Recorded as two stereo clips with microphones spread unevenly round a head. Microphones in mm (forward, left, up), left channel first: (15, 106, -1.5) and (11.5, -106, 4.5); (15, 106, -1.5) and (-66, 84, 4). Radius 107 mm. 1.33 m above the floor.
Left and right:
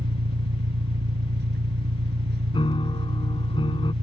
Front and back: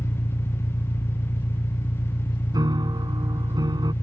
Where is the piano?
160° left.